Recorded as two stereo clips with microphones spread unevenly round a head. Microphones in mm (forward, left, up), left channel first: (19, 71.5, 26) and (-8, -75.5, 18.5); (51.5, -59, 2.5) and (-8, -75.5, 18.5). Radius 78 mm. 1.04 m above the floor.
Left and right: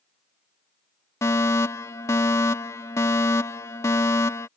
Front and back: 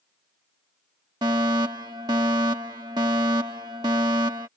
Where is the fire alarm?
150° left.